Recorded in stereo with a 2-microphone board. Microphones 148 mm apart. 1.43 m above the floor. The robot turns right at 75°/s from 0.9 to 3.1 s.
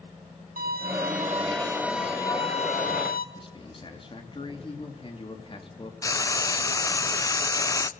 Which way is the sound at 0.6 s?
80° right.